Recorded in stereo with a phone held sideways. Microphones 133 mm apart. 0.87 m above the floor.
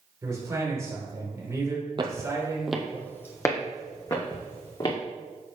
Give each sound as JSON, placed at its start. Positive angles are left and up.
{"t": 0.2, "sound": "a man speaking", "side_deg": -25, "distance_m": 3.5}
{"t": 2.0, "sound": "footsteps", "side_deg": -35, "distance_m": 1.1}